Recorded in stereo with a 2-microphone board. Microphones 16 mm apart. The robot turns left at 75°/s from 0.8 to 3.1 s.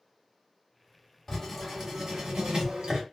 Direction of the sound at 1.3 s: 30° left.